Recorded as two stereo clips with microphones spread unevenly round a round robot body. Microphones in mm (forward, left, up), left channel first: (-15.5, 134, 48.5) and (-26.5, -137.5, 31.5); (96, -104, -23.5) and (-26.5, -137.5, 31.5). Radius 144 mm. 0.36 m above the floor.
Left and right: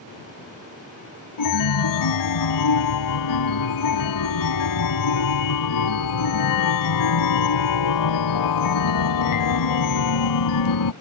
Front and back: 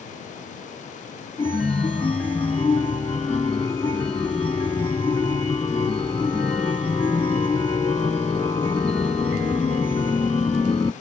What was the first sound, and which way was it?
A chime, 95° left.